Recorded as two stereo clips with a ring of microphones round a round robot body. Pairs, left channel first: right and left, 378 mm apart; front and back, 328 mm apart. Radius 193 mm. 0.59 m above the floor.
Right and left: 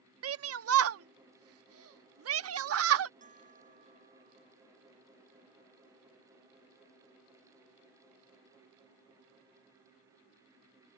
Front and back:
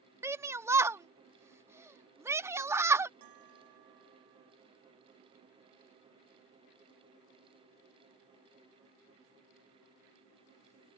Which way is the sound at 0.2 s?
105° left.